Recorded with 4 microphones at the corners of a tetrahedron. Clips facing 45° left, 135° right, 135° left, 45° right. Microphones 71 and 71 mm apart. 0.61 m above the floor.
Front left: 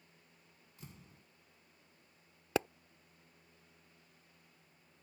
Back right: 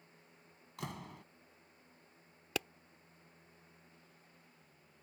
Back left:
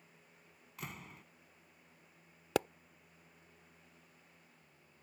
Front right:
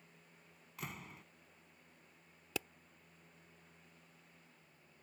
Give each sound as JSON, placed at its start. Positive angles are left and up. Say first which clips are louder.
{"t": 0.8, "sound": "a door slam", "louder": "back right 13 dB, even", "azimuth_deg": -135}
{"t": 2.5, "sound": "a pop", "louder": "front left 6 dB, back left 10 dB", "azimuth_deg": 105}